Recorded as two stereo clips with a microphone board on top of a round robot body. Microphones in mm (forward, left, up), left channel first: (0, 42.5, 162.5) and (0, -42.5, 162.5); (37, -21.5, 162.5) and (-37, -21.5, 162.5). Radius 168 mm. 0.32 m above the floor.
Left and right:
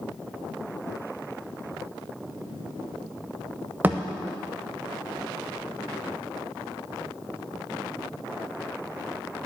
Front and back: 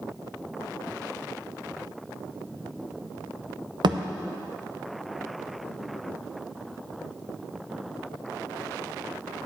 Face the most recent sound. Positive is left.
turn(degrees=-160)